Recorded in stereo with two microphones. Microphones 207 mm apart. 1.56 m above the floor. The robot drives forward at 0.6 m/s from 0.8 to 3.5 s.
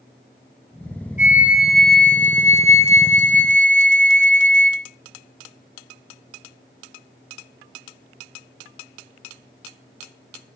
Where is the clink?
I don't hear a clink.